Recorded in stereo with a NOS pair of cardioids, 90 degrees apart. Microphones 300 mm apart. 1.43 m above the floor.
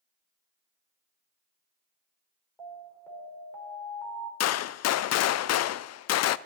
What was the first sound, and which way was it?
An alarm, 5° left.